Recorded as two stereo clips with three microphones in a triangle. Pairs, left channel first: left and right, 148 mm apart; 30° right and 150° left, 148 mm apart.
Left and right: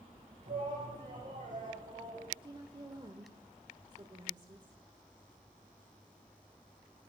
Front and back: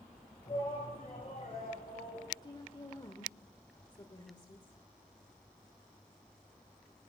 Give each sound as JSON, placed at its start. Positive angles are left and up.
{"t": 0.5, "sound": "a shout", "azimuth_deg": -90, "distance_m": 2.5}
{"t": 2.4, "sound": "a woman speaking", "azimuth_deg": -65, "distance_m": 1.2}